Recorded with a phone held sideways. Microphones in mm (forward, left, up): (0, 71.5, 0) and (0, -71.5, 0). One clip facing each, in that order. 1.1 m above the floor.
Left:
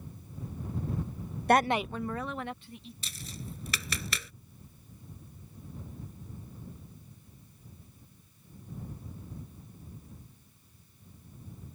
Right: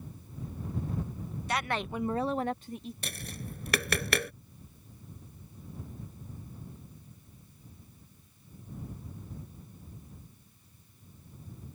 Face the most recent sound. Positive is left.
turn(degrees=-65)  # may be behind; listen again after turning